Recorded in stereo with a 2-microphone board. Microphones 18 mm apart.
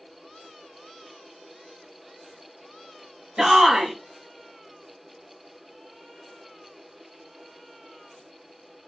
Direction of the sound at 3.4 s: 35° right (ahead or behind).